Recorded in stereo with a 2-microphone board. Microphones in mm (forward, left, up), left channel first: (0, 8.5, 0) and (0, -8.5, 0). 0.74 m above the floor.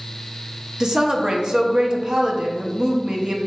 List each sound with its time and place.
0.8 s a woman speaking: 40° right (ahead or behind), 0.7 m